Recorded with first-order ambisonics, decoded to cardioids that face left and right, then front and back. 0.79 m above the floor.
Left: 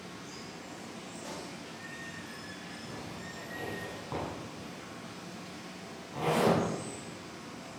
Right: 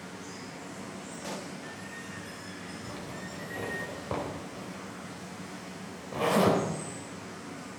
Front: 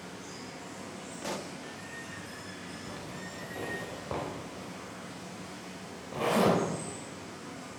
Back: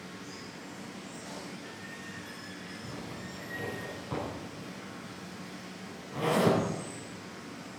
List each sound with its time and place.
0.0 s running water: 60° right, 4.5 m
1.2 s a pop: 25° right, 0.9 m
2.8 s a zipper: 65° right, 4 m